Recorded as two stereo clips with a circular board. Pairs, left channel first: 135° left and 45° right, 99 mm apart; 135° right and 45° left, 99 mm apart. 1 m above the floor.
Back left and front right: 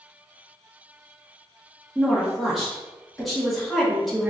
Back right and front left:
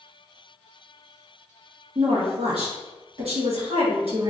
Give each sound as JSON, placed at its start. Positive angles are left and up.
{"t": 1.9, "sound": "a woman speaking", "azimuth_deg": 45, "distance_m": 1.4}